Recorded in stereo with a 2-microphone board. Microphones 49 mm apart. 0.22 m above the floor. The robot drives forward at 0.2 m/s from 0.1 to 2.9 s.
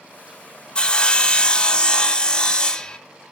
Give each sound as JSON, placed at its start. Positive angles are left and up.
{"t": 0.8, "sound": "sawing", "side_deg": 20, "distance_m": 0.7}